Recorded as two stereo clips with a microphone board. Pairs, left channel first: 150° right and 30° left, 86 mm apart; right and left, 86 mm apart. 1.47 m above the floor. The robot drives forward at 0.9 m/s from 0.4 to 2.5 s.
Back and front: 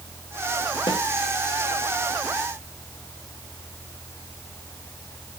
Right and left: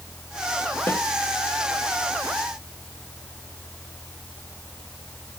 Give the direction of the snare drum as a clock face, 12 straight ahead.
5 o'clock.